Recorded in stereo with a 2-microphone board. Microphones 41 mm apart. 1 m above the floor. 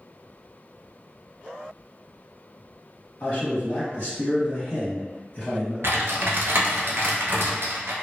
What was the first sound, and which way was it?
A man speaking, 55° left (ahead or behind).